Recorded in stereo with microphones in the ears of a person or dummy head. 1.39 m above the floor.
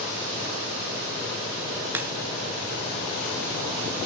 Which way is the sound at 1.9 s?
10° right (ahead or behind).